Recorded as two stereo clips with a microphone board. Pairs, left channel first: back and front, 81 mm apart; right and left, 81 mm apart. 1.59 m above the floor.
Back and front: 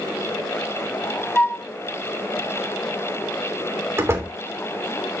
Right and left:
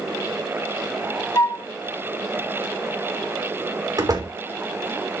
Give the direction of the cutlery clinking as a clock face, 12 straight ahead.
No cutlery clinking in this recording.